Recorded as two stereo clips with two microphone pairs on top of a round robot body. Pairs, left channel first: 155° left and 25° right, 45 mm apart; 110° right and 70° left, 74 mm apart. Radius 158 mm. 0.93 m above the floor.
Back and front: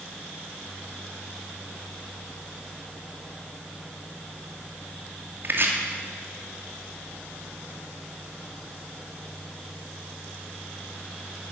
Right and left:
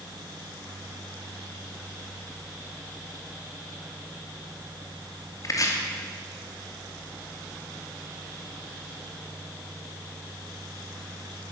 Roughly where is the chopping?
Ahead right.